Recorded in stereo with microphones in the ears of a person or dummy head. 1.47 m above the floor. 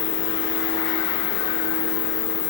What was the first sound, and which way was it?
An insect, 50° left (ahead or behind).